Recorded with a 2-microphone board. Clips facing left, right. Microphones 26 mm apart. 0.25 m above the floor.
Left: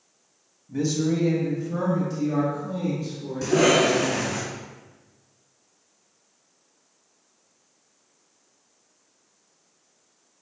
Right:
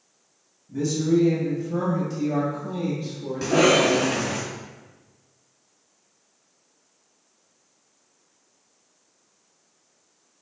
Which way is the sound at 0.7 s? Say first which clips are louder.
Right 2 dB; 35° left (ahead or behind).